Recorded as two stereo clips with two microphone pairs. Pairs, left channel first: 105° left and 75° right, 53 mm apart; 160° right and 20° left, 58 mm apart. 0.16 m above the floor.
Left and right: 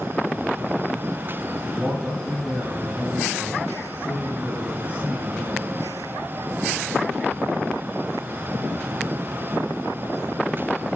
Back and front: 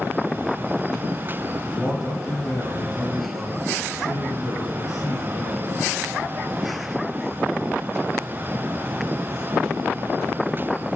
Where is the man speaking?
135° right, 3.5 m.